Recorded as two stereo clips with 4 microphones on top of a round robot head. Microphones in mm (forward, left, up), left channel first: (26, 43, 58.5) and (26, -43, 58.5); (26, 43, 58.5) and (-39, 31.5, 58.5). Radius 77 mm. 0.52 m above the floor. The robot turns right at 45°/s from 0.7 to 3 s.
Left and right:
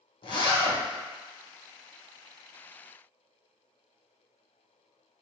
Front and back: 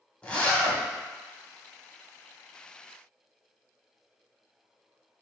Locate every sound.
0.2 s a zipper: 80° left, 1.2 m; by 0.8 s 85° left, 1.2 m